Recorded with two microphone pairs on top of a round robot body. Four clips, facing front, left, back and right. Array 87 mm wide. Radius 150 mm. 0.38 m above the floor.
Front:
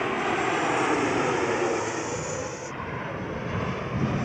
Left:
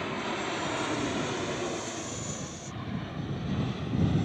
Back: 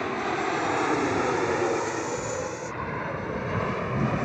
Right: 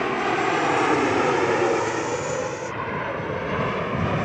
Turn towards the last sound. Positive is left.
turn(degrees=-100)